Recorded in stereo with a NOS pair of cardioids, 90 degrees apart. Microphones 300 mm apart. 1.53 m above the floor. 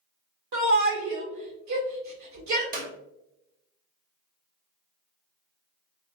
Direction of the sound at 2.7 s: 30° right.